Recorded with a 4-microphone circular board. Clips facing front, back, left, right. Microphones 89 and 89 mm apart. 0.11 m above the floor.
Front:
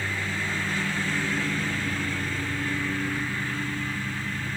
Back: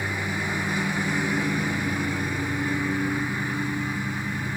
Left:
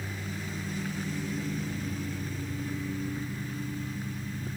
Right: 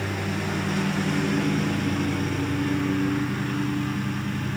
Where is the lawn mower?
105° right.